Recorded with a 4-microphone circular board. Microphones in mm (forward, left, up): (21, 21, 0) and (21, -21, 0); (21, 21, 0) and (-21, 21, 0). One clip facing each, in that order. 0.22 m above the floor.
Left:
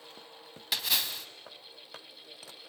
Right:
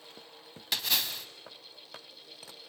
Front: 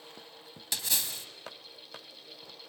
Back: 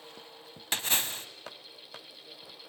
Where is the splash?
Straight behind, 0.8 m.